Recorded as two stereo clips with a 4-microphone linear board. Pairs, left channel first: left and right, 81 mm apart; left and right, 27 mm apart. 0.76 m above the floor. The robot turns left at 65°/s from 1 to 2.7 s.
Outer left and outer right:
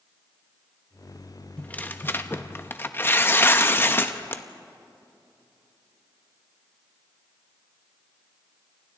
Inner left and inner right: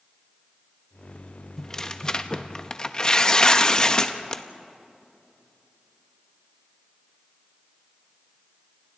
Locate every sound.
1.6 s tearing paper: 15° left (ahead or behind), 0.9 m; by 4.4 s 25° left (ahead or behind), 0.9 m